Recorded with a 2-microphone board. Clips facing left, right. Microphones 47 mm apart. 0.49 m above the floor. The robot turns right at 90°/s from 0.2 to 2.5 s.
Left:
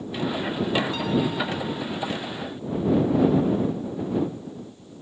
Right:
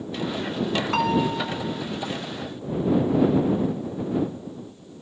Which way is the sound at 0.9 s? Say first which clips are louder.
Right 2 dB; 75° right.